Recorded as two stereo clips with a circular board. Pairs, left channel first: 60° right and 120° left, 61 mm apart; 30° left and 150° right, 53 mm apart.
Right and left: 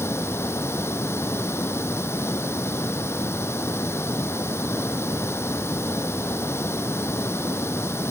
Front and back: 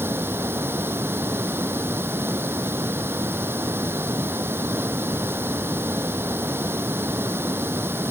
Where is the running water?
105° right.